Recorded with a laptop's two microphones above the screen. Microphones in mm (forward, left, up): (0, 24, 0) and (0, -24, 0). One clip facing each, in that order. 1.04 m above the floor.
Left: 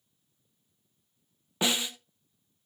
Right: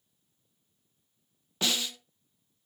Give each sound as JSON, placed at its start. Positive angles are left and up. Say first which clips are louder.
{"t": 1.6, "sound": "a snare drum", "louder": "left 2 dB", "side_deg": 20, "distance_m": 0.7}